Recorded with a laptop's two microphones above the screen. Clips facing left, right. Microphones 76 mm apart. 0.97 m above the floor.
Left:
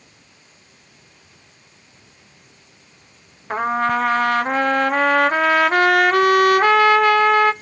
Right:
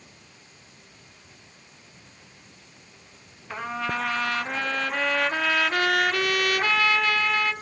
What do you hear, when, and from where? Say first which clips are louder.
3.5 s a trumpet: left 10 dB; 45° left (ahead or behind), 0.6 m